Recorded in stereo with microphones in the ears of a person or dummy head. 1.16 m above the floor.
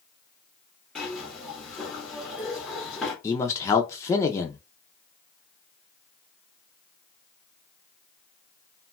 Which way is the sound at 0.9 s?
Centre (ahead or behind).